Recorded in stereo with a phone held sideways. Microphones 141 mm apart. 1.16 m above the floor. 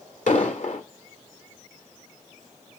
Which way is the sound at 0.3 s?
65° left (ahead or behind).